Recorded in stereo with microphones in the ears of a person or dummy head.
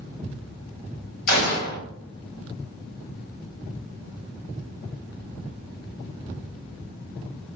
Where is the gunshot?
55° left (ahead or behind), 0.7 m.